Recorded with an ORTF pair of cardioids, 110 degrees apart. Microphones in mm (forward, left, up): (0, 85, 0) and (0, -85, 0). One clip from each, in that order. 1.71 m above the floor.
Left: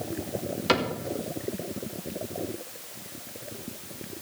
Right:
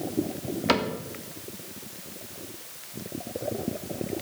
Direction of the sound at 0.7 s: 5° right.